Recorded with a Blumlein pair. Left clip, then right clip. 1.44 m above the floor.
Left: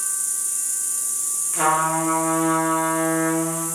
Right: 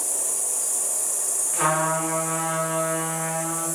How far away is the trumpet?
About 1.4 m.